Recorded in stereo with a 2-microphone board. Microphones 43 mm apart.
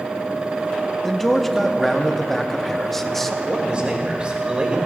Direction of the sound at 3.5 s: 25° right (ahead or behind).